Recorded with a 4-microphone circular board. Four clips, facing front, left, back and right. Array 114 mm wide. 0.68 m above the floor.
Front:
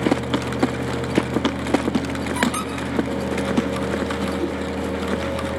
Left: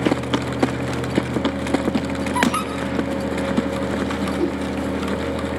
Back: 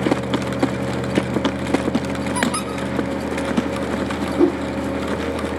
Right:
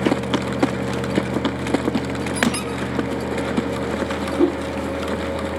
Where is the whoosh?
150° right, 1.2 m.